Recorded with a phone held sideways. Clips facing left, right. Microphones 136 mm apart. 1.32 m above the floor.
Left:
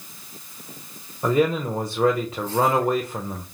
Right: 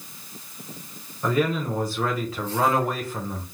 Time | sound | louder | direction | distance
1.2 | a man speaking | left 3 dB | 25° left (ahead or behind) | 0.6 m